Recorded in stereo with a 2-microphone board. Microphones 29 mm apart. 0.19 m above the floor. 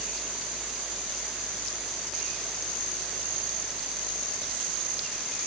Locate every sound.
Only background noise.